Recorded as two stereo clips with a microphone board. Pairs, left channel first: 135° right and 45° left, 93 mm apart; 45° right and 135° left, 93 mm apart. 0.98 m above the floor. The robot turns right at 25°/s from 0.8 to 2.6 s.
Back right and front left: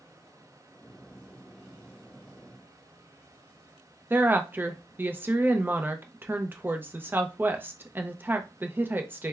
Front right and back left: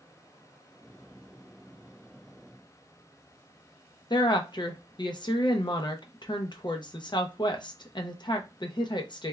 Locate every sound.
4.1 s a woman speaking: 20° right, 0.6 m